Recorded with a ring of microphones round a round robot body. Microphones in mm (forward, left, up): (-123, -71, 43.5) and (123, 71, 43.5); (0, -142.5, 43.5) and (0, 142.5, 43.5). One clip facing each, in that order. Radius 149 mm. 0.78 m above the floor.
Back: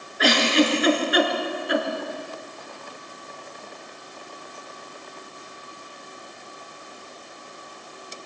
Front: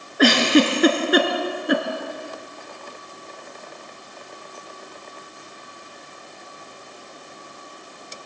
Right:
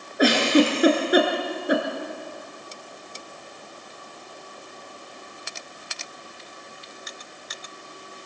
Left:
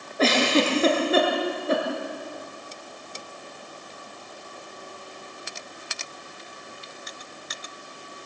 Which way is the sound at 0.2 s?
15° right.